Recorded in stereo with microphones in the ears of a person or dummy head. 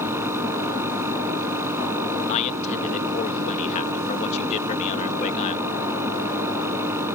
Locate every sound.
0.0 s a fan: 15° right (ahead or behind)
2.3 s a man speaking: 40° left (ahead or behind)